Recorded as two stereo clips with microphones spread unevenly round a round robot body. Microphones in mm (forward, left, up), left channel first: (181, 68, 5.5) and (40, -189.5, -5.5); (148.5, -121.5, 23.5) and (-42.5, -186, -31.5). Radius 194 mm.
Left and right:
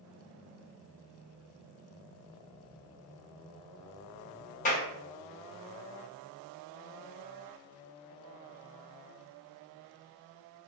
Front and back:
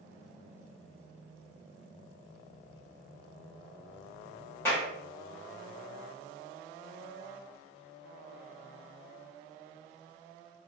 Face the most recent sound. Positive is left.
turn(degrees=115)